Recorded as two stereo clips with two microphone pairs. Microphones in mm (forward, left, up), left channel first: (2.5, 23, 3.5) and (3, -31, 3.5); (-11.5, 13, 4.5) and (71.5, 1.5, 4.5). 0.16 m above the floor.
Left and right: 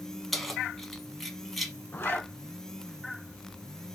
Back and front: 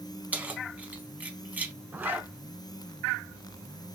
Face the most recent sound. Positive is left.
turn(degrees=50)